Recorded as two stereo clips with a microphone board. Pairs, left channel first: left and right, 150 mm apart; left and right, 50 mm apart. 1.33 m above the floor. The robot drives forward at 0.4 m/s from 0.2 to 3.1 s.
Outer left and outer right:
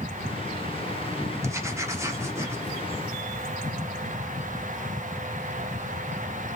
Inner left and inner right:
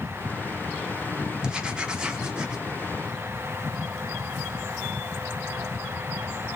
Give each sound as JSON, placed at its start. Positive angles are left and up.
{"t": 1.4, "sound": "writing", "side_deg": -20, "distance_m": 0.9}